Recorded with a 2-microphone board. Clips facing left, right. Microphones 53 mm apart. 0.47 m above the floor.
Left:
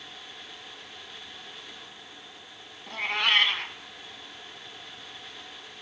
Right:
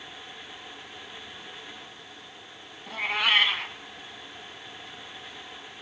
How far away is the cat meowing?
About 1.0 m.